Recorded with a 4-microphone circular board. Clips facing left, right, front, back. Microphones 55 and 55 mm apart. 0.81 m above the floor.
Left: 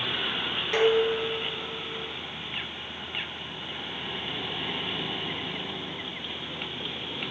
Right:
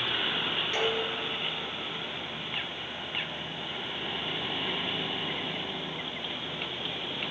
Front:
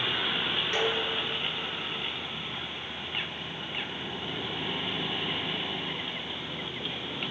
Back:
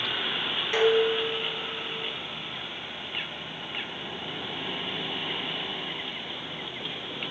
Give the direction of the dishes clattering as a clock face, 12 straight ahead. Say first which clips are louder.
Left 11 dB, back 10 dB; 8 o'clock.